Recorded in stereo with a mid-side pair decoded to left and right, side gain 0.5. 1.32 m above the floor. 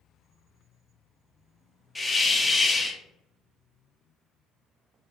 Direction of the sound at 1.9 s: 10° left.